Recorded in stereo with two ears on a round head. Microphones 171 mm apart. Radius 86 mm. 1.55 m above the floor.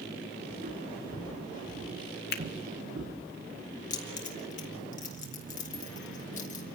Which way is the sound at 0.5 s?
50° right (ahead or behind).